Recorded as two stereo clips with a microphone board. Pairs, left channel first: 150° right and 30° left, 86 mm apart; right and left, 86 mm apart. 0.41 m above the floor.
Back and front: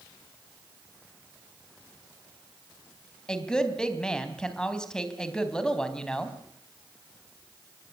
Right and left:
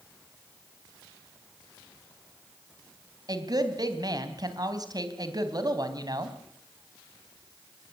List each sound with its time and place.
3.3 s a woman speaking: 130° left, 3 m